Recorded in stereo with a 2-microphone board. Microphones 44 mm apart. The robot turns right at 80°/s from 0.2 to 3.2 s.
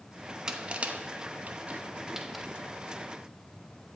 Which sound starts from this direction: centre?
Crushing, at 0.5 s.